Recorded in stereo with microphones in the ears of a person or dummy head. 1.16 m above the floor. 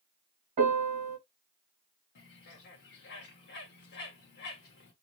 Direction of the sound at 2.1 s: 55° left (ahead or behind).